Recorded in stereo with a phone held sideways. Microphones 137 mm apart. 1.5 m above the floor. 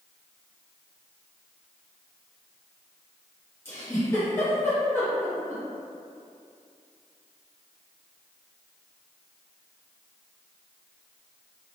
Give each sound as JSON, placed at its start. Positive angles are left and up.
{"t": 3.6, "sound": "a giggle", "side_deg": 20, "distance_m": 1.6}